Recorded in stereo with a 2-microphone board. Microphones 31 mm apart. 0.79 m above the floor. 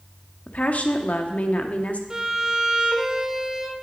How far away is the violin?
About 0.8 m.